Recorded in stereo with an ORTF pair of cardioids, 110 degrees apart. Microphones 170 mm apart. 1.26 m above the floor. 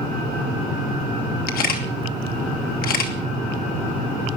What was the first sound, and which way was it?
A camera shutter, 65° left.